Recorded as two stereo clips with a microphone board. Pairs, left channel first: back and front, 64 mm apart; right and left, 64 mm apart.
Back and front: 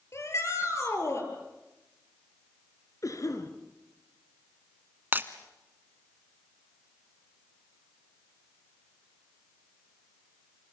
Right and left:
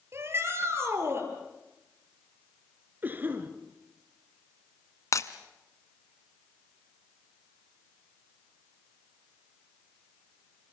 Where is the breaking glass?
60° right, 1.4 m.